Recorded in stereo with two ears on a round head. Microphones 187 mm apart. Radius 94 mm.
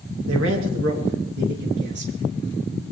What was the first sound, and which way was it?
A man speaking, 70° right (ahead or behind).